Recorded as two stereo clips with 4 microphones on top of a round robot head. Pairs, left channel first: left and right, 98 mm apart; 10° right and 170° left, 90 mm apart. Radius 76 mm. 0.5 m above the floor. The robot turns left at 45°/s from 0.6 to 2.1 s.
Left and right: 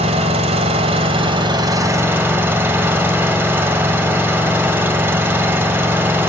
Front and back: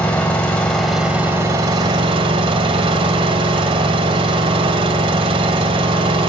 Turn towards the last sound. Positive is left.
turn(degrees=-160)